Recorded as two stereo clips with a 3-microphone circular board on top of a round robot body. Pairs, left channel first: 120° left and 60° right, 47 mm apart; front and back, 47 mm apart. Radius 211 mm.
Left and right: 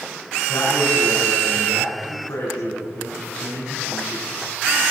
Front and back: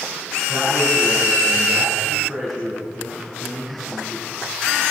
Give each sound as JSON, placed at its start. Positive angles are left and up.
{"t": 0.5, "sound": "a man speaking", "azimuth_deg": 95, "distance_m": 9.0}